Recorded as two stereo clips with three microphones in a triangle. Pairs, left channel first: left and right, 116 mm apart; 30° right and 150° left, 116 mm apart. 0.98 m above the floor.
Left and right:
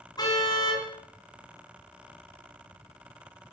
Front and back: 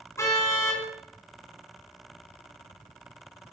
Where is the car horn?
35° left, 5 m.